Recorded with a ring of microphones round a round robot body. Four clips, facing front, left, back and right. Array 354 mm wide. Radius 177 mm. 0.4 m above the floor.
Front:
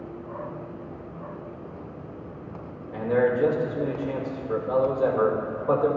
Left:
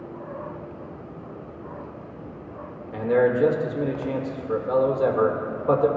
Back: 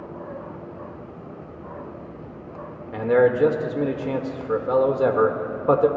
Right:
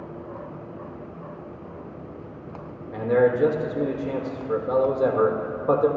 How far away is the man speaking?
About 1.4 m.